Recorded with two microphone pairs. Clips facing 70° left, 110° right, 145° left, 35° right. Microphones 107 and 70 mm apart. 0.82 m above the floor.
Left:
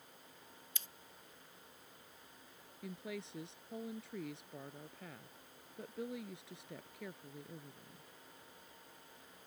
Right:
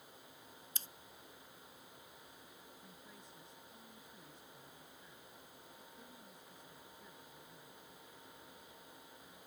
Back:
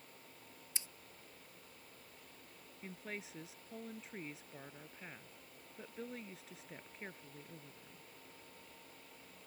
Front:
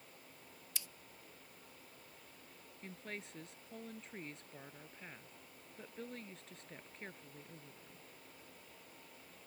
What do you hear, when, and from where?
0.8 s scissors: 155° right
2.8 s a woman speaking: 60° left